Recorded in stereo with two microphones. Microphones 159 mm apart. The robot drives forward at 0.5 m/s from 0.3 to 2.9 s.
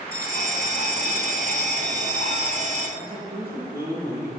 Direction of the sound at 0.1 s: 60° left (ahead or behind).